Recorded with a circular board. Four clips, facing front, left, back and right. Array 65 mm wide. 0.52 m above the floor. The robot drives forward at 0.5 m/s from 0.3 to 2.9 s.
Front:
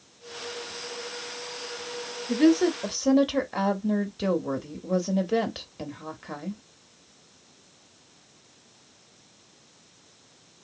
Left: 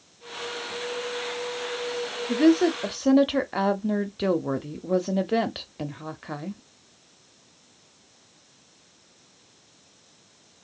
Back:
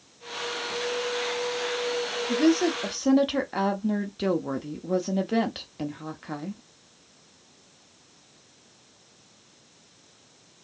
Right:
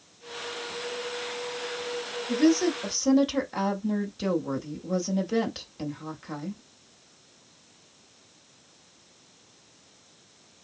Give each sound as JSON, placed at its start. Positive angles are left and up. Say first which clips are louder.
{"t": 2.3, "sound": "a woman speaking", "louder": "left 3 dB, front 2 dB", "azimuth_deg": 60, "distance_m": 0.8}